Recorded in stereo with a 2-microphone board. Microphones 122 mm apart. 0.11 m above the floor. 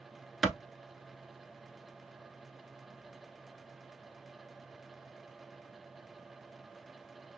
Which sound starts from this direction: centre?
A clap, at 0.4 s.